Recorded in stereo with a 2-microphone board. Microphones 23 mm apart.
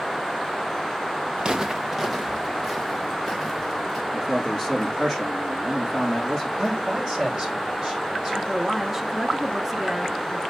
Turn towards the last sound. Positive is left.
turn(degrees=-20)  # may be behind; listen again after turning